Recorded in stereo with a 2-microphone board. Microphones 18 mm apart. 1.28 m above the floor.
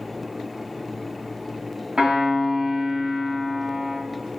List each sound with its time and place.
2.0 s a piano: 85° right, 2.0 m